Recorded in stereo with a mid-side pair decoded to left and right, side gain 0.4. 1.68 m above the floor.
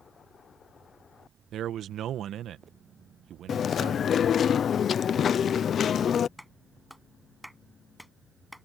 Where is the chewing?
60° left.